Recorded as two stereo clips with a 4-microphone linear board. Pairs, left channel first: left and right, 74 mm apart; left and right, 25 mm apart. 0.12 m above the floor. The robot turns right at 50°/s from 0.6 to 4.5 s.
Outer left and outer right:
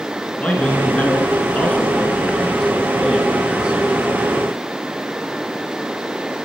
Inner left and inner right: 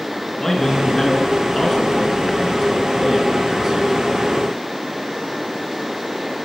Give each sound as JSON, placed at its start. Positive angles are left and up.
{"t": 0.4, "sound": "a man speaking", "side_deg": 20, "distance_m": 1.1}